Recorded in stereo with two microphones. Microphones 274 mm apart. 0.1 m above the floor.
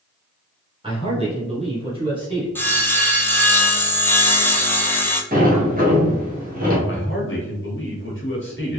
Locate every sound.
0.8 s a man speaking: 20° right (ahead or behind), 1.7 m; by 2.5 s 15° right (ahead or behind), 2 m
2.5 s sawing: 10° left (ahead or behind), 0.5 m
5.3 s a sliding door: 30° right (ahead or behind), 1.3 m
6.9 s a man speaking: 45° left (ahead or behind), 1.6 m